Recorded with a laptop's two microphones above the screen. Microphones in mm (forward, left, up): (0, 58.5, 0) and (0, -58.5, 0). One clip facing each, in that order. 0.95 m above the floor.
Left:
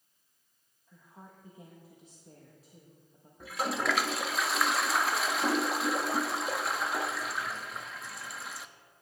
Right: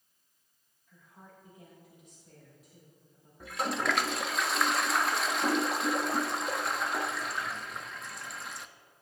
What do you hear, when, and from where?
0.9 s a woman speaking: 30° left (ahead or behind), 1.1 m
3.4 s a toilet flushing: centre (ahead or behind), 0.5 m